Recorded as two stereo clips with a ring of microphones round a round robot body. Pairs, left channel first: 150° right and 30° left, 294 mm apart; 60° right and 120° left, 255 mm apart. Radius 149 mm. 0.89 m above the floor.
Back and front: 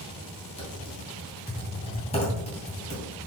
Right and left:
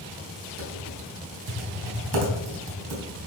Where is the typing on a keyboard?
140° left, 3 m.